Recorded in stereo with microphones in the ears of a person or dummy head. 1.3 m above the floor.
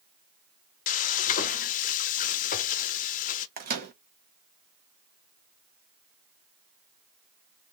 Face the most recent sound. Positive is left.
turn(degrees=-45)  # may be behind; listen again after turning